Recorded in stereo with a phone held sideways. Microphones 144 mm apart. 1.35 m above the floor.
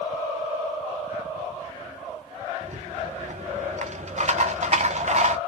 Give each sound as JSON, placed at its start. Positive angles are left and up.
{"t": 2.6, "sound": "a rattle", "side_deg": -55, "distance_m": 0.6}